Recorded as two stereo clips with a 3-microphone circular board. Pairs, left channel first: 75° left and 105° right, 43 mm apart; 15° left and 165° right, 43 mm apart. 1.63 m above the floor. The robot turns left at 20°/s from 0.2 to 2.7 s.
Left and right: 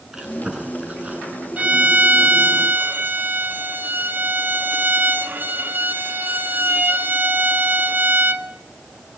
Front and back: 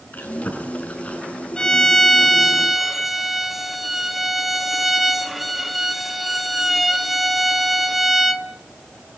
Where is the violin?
55° right, 1.7 m; by 8.5 s 80° right, 1.7 m.